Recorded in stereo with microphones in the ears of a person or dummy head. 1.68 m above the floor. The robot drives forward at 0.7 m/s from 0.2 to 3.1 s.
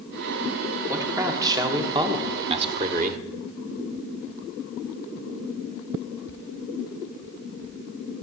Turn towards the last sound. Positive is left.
turn(degrees=-40)  # may be behind; listen again after turning